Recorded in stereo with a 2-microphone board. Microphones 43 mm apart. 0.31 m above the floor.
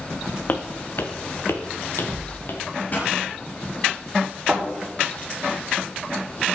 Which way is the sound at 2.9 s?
45° left (ahead or behind).